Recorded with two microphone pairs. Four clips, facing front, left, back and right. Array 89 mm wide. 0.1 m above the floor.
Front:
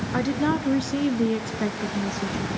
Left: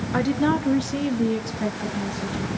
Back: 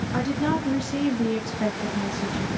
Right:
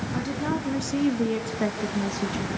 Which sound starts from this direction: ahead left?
A woman speaking, at 0.1 s.